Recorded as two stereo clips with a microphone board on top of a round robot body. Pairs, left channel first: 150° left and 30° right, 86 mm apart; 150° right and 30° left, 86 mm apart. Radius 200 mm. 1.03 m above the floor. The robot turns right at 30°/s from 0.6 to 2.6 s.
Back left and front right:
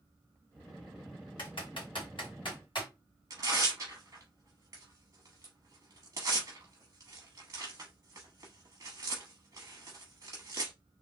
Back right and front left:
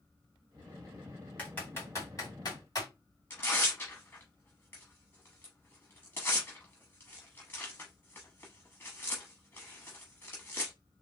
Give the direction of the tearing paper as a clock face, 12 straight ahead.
3 o'clock.